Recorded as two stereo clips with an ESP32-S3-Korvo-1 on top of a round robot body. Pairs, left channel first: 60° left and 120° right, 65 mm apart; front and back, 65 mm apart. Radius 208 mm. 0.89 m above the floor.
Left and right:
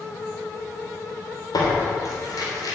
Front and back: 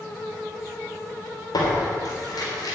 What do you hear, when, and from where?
1.5 s tearing paper: 30° left, 3.5 m